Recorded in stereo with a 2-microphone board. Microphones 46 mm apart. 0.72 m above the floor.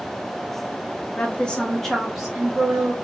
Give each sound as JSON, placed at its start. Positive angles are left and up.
{"t": 1.2, "sound": "a woman speaking", "side_deg": 30, "distance_m": 0.7}